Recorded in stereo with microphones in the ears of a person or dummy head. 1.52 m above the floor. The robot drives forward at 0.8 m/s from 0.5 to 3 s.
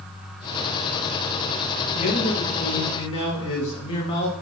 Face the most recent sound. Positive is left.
turn(degrees=30)  # may be behind; listen again after turning